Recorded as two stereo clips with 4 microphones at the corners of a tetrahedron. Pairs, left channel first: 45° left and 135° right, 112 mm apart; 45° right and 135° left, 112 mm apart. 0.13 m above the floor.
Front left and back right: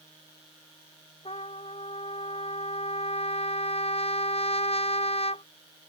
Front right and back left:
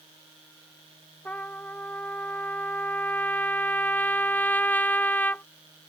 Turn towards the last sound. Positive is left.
turn(degrees=30)